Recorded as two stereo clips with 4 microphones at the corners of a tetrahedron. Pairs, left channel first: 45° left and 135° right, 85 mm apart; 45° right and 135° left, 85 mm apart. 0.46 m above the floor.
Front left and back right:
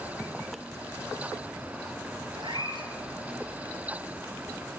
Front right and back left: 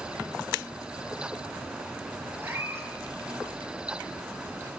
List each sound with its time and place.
2.4 s a cat meowing: 165° right, 4.5 m